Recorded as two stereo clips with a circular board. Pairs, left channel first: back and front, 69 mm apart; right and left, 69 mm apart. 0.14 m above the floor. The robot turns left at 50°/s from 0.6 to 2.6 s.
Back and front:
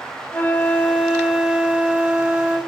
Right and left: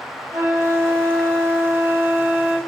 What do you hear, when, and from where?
0.3 s a flute: 125° left, 3.5 m; by 2.6 s 25° left, 3.5 m